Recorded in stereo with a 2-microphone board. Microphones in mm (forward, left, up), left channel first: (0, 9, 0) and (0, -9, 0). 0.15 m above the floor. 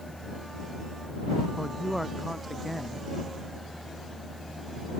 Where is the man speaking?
5° right (ahead or behind).